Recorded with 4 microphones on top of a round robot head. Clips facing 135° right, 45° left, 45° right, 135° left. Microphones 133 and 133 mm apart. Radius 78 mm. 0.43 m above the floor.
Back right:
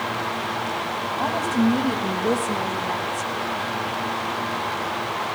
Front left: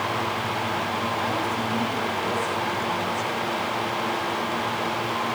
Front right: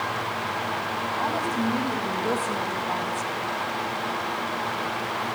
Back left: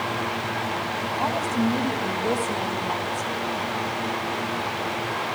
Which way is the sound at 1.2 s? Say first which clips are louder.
Back right 5 dB, back left 3 dB; 165° right.